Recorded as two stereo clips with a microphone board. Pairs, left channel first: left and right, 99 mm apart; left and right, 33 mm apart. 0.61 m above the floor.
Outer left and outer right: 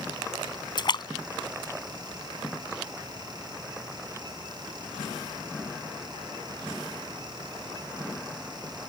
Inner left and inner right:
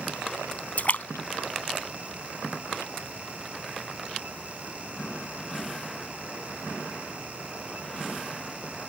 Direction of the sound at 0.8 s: 50° left (ahead or behind).